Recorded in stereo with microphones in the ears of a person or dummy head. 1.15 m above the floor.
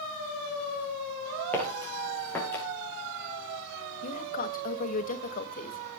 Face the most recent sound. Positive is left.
turn(degrees=40)  # may be behind; listen again after turning